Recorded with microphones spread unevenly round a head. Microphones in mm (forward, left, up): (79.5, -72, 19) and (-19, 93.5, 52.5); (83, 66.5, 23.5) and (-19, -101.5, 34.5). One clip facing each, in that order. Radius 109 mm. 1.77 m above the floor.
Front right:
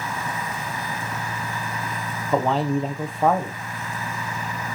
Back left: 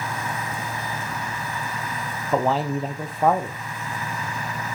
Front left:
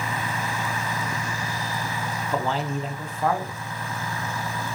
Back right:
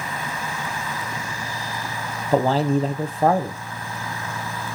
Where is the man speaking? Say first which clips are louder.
Front right 1 dB, back right 9 dB; 165° right, 0.7 m.